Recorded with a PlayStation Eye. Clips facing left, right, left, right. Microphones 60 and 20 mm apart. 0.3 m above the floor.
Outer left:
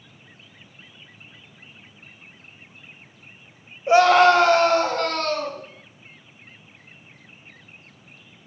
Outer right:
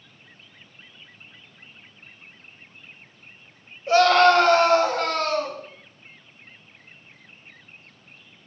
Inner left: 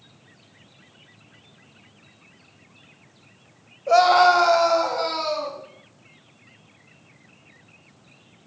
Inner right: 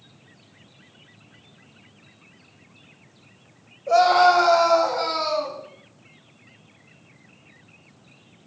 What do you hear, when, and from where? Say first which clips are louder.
3.9 s a scream: outer left 2 dB, inner left 1 dB; 20° left (ahead or behind), 1.1 m; by 5.6 s 10° right (ahead or behind), 3 m